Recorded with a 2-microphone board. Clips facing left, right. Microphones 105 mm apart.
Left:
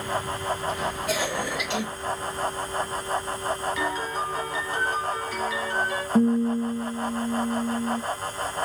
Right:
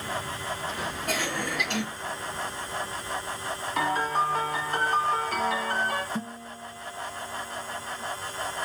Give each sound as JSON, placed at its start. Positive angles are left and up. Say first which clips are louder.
{"t": 1.1, "sound": "a cough", "louder": "left 1 dB", "side_deg": -50, "distance_m": 2.5}
{"t": 3.8, "sound": "a piano", "louder": "right 2 dB", "side_deg": -60, "distance_m": 1.0}
{"t": 6.2, "sound": "a guitar", "louder": "left 16 dB", "side_deg": 70, "distance_m": 0.6}